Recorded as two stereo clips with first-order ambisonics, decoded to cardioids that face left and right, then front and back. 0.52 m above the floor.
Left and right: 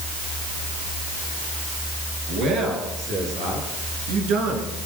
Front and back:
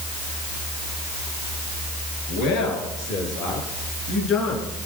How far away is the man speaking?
About 7.5 m.